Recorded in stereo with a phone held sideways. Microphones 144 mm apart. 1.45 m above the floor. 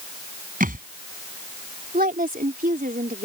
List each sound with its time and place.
0.6 s a thud: 75° right (ahead or behind)
1.9 s a woman speaking: 80° right